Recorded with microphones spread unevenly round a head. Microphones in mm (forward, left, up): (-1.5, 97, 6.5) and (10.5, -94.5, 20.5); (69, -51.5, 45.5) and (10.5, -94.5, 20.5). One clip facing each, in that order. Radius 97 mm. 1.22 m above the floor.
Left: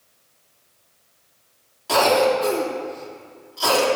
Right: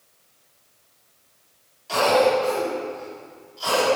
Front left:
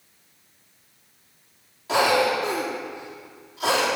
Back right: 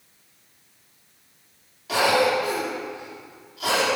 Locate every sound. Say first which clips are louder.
1.9 s a cough: left 1 dB, even; 110° left, 4 m